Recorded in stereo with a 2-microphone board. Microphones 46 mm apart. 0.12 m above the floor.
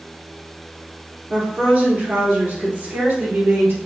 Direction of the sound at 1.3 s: 25° right (ahead or behind).